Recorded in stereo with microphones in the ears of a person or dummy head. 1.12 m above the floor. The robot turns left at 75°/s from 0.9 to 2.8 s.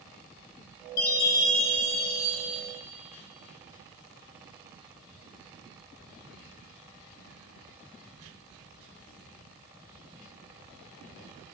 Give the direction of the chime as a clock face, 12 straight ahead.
10 o'clock.